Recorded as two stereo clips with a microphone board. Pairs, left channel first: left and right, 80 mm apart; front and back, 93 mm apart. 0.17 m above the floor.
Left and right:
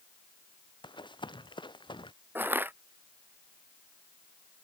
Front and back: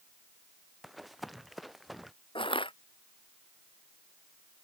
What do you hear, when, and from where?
0.8 s running footsteps: 90° left
2.4 s crushing: 25° right